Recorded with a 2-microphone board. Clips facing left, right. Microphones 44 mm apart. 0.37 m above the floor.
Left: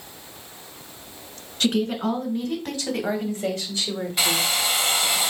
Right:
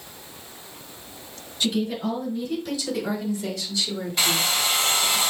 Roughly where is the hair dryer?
Centre.